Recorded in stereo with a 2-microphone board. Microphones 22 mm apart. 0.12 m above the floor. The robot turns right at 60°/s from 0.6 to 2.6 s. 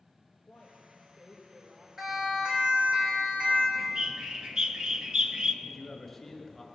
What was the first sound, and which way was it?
A woman speaking, 145° left.